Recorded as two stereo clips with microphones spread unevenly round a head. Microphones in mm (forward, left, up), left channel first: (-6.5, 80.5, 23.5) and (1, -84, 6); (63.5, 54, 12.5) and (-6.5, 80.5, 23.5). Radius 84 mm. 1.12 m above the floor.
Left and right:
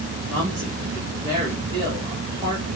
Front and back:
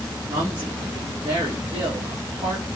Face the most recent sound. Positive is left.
turn(degrees=-150)